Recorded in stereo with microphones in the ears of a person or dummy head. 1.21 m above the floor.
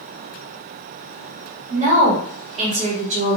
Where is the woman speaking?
35° right (ahead or behind), 1.0 m.